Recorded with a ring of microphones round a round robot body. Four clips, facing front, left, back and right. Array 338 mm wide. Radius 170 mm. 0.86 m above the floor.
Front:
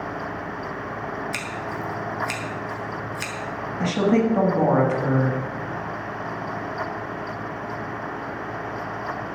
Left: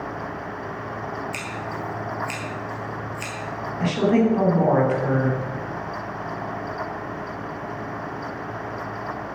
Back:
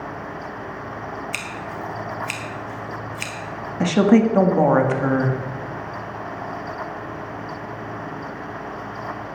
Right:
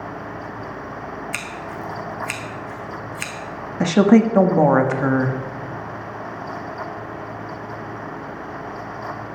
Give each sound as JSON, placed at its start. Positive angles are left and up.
{"t": 1.3, "sound": "scissors", "azimuth_deg": -75, "distance_m": 1.6}
{"t": 3.8, "sound": "a woman speaking", "azimuth_deg": -115, "distance_m": 1.4}